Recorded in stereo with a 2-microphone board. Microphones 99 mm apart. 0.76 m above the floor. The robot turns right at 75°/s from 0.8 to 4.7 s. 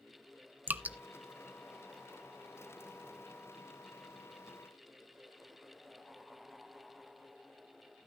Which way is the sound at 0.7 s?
20° right (ahead or behind).